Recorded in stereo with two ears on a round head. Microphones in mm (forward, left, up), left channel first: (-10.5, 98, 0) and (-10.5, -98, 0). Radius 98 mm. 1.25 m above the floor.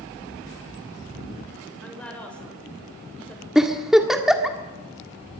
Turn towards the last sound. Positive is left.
turn(degrees=0)  # may be behind; listen again after turning